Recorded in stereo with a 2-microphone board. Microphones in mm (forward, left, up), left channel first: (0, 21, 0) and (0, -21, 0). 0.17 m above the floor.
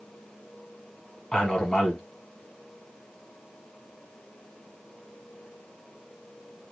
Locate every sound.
1.3 s a man speaking: 20° left (ahead or behind), 1.1 m